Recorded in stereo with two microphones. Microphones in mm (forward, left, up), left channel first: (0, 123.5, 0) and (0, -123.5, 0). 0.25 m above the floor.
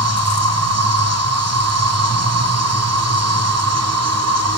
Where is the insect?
85° right, 1.1 m.